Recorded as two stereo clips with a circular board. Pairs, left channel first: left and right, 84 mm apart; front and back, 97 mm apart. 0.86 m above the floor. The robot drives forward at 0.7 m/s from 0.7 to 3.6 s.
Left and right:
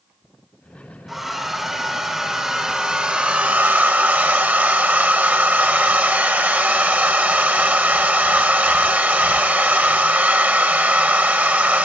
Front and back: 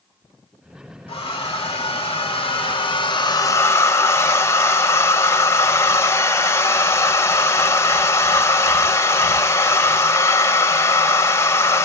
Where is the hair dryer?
5° right, 2 m; by 11.9 s 35° right, 0.5 m.